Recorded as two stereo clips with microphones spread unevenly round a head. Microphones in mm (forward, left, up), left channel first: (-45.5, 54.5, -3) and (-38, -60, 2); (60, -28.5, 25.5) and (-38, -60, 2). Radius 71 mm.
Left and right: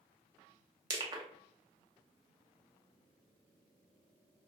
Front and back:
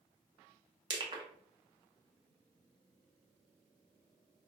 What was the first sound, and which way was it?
Crushing, 135° right.